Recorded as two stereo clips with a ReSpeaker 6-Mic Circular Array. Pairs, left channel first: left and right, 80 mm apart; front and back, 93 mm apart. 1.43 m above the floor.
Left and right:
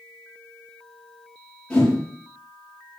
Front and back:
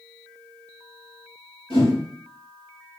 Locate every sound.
1.7 s a whoosh: 15° left, 1.9 m